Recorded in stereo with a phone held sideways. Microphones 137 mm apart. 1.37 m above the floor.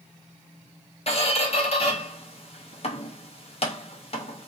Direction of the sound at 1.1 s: 45° left (ahead or behind).